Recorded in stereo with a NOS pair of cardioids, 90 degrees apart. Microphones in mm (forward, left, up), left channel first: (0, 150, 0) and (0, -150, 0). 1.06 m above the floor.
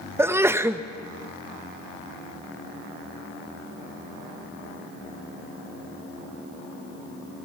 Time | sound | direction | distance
0.2 | a sneeze | 10° right | 0.8 m